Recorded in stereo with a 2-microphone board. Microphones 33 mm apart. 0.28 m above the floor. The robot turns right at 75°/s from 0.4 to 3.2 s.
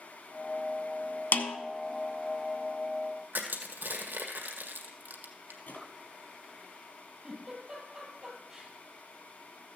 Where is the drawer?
80° left, 3 m.